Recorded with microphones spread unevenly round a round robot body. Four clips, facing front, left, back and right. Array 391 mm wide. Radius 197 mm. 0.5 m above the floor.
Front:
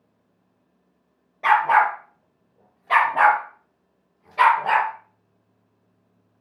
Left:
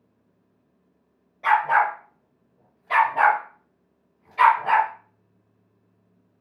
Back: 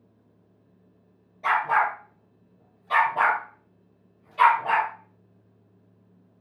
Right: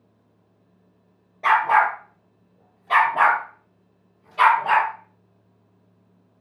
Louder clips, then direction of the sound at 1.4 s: Right 2 dB, front 6 dB; 35° right.